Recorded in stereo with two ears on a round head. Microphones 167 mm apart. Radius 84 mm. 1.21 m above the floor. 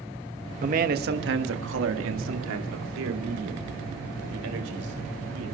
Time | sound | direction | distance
0.6 | a man speaking | 40° right (ahead or behind) | 1.4 m